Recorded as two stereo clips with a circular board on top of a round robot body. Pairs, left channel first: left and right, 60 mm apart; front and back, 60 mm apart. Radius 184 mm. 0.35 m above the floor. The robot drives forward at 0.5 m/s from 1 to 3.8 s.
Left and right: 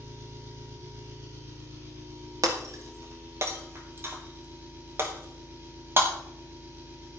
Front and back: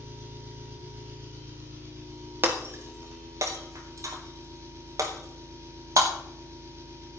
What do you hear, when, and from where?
0.0 s an engine running: 125° right, 4 m; by 7.2 s 140° right, 5 m
2.4 s breaking glass: 120° right, 1.1 m; by 6.1 s 145° right, 1.5 m